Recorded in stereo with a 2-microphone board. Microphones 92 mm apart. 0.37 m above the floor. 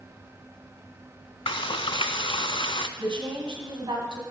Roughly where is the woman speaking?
Right.